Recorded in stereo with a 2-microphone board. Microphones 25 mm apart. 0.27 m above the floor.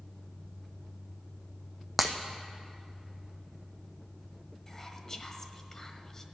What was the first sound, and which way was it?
Breaking glass, 5° left (ahead or behind).